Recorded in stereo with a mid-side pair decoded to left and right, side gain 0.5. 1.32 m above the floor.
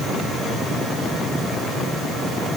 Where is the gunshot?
No gunshot in this recording.